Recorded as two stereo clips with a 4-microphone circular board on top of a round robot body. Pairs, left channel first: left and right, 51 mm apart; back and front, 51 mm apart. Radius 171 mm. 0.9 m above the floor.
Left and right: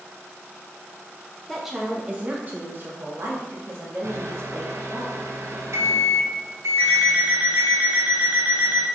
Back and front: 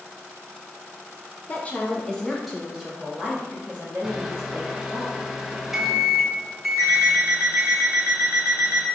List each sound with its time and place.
1.5 s a woman speaking: 175° left, 0.9 m; by 5.0 s 60° right, 2 m
4.0 s a microwave: 85° right, 0.8 m
6.8 s an alarm clock: 25° right, 1.5 m